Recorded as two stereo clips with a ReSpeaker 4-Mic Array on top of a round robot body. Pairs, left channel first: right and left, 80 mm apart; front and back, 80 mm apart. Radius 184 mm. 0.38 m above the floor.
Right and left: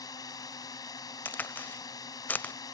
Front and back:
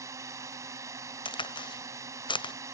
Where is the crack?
20° right.